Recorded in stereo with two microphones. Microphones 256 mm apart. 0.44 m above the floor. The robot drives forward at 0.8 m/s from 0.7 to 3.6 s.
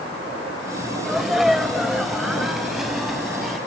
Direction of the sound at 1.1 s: Centre (ahead or behind).